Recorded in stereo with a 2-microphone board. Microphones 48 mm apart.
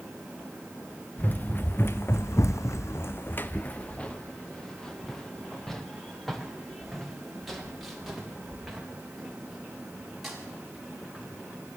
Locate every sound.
1.2 s running footsteps: 35° left (ahead or behind), 1.1 m; by 11.3 s centre (ahead or behind), 5.5 m